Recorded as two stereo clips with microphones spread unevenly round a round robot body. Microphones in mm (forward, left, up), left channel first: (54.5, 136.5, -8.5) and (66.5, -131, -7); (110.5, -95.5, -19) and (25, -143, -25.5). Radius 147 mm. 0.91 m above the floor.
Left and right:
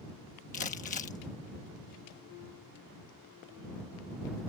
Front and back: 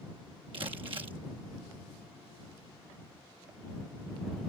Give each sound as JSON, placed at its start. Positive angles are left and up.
{"t": 0.5, "sound": "crumpling", "azimuth_deg": 155}